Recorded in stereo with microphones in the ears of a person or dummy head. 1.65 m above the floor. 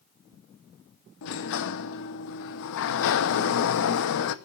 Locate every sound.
1.2 s a sliding door: 65° left (ahead or behind), 1.0 m